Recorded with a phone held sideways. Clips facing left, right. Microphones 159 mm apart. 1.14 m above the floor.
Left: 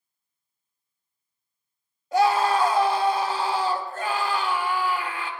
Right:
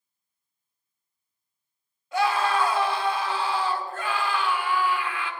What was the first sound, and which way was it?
A scream, 40° left (ahead or behind).